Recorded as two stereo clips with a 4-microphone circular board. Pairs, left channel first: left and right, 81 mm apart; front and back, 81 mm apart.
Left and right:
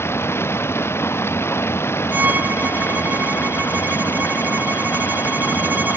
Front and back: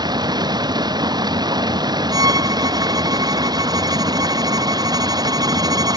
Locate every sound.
0.0 s running water: 150° left
2.1 s a violin: 155° right